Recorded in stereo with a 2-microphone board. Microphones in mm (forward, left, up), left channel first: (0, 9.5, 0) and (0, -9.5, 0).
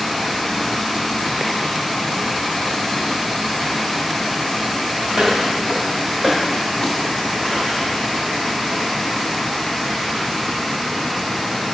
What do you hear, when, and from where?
5.1 s footsteps: 50° right (ahead or behind), 5 m; by 7.8 s 10° right (ahead or behind), 5.5 m